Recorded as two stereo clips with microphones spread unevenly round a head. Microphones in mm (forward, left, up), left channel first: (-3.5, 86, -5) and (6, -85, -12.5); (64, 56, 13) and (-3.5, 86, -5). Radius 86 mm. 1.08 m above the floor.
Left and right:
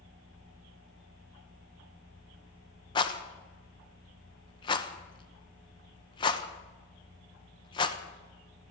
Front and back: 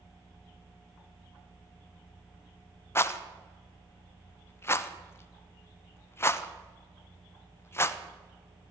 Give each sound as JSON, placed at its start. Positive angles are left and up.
{"t": 3.0, "sound": "a rattle", "azimuth_deg": 35, "distance_m": 1.0}